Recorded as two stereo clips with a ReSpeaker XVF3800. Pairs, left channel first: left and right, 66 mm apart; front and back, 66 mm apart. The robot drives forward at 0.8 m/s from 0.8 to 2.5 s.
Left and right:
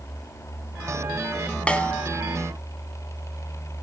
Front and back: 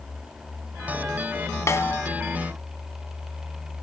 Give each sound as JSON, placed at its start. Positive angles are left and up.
{"t": 1.7, "sound": "a snare drum", "azimuth_deg": 20, "distance_m": 1.5}